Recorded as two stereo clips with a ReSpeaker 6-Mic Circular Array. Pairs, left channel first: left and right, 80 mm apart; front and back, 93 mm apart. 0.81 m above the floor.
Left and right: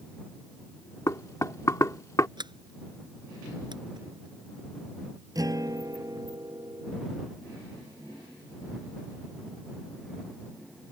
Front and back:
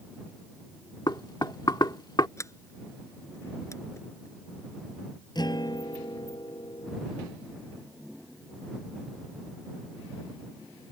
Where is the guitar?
45° right.